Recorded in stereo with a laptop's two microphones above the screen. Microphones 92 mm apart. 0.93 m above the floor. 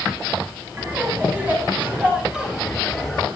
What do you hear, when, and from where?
0.8 s laughter: 20° right (ahead or behind), 7 m; by 3.3 s 5° left (ahead or behind), 4 m